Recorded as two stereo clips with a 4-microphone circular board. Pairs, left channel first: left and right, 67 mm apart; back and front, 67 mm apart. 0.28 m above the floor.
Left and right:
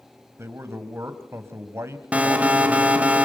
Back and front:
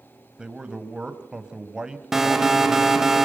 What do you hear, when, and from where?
0.4 s a man speaking: 70° right, 1.8 m
2.1 s an alarm: 70° right, 1.8 m